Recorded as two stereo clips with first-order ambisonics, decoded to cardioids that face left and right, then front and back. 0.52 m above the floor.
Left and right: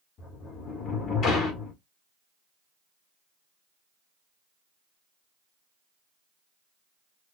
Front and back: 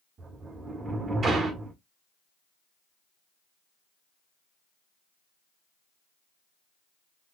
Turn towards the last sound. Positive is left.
turn(degrees=130)